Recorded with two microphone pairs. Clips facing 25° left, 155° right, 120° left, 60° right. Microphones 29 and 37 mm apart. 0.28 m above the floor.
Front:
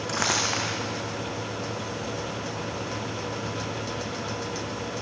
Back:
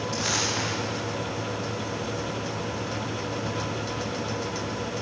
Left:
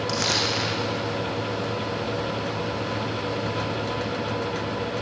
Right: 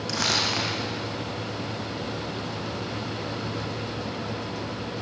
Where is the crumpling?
30° left, 7.5 m.